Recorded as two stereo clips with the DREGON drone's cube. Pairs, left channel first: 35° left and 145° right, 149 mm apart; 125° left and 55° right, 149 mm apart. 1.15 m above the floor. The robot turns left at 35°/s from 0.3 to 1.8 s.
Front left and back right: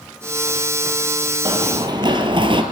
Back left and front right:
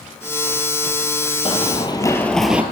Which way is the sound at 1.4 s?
165° left.